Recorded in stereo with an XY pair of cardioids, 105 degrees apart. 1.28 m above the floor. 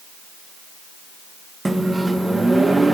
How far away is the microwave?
About 1.1 m.